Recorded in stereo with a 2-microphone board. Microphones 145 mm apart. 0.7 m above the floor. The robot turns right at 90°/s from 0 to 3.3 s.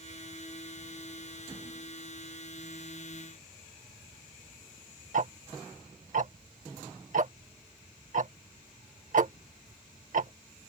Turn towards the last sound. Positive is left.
turn(degrees=-60)  # may be behind; listen again after turning